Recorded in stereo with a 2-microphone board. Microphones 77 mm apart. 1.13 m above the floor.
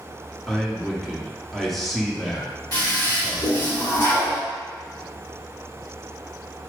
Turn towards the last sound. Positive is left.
turn(degrees=55)  # may be behind; listen again after turning